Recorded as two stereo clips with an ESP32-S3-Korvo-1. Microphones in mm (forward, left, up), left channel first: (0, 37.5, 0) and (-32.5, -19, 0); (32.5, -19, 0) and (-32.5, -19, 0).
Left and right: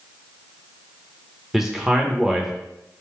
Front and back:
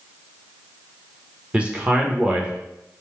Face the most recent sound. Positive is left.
turn(degrees=165)